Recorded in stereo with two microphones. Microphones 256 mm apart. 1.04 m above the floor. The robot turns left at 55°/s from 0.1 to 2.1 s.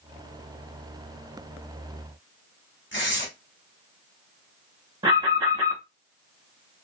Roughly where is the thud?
I don't hear a thud.